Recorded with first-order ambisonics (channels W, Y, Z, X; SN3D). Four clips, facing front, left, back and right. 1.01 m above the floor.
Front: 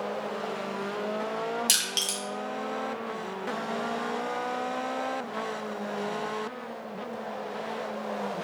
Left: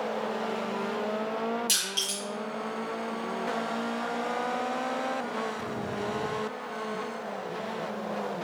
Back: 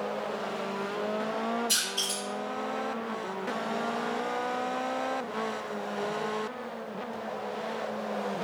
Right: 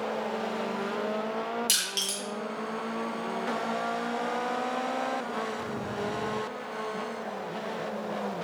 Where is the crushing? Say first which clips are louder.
Even, front 2 dB; 15° right, 1.3 m.